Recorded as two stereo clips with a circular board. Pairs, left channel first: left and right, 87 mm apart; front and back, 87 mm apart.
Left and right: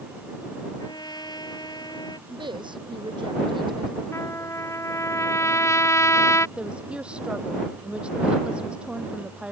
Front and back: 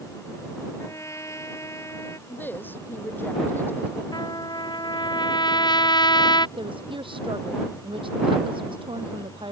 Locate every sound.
0.8 s a trumpet: 55° left
2.3 s a woman speaking: 65° right
4.1 s a trumpet: 35° left
6.6 s a woman speaking: 165° right